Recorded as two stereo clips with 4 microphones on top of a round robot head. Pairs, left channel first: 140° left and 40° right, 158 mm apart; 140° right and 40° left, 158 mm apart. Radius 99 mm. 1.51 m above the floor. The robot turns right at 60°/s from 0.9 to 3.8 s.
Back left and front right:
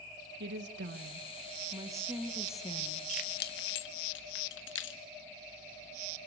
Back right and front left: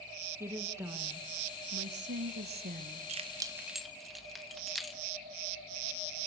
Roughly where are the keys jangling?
Left.